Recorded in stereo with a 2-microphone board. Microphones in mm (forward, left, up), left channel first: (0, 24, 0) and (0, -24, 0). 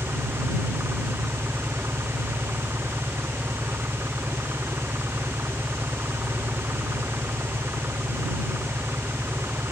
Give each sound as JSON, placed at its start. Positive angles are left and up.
{"t": 0.0, "sound": "an engine running", "side_deg": -65}